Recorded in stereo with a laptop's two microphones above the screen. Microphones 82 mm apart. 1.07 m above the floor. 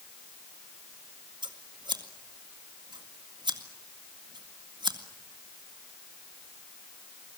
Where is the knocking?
I don't hear knocking.